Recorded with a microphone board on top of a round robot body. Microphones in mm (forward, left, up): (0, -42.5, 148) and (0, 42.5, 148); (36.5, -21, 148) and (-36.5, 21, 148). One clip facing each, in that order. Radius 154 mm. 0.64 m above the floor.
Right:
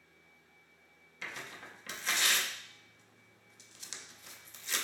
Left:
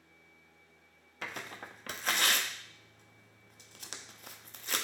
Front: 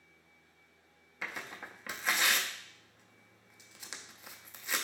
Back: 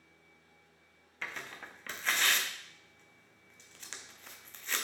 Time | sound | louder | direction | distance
1.2 | tearing paper | left 3 dB, front 1 dB | 50° left | 0.5 m